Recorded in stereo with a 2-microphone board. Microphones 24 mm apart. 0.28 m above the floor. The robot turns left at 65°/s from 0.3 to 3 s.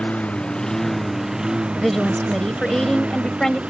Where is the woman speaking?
5° left (ahead or behind); by 3.6 s 25° left (ahead or behind).